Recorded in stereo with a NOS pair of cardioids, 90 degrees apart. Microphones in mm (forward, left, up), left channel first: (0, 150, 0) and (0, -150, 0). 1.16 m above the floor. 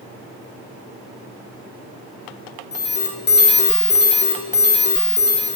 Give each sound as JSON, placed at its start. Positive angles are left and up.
{"t": 2.7, "sound": "an alarm", "azimuth_deg": 35, "distance_m": 0.9}